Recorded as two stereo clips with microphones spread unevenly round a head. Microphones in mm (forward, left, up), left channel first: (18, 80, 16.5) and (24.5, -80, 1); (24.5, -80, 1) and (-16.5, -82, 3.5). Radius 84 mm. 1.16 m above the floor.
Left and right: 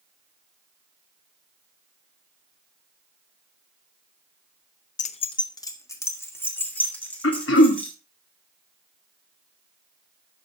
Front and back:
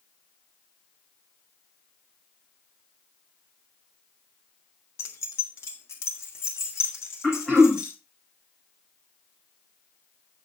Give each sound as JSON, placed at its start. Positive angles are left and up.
{"t": 5.0, "sound": "keys jangling", "azimuth_deg": 50, "distance_m": 0.6}
{"t": 7.2, "sound": "throat clearing", "azimuth_deg": 90, "distance_m": 2.0}